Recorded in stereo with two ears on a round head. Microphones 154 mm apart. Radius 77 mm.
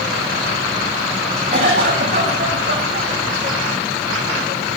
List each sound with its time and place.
1.5 s a cough: 35° right (ahead or behind), 8.5 m